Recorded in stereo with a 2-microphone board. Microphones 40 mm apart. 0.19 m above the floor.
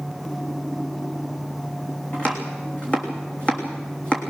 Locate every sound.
2.1 s chopping: 25° left (ahead or behind), 3 m